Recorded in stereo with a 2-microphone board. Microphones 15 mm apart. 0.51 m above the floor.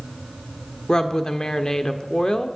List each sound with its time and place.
0.9 s a woman speaking: 45° left (ahead or behind), 1.2 m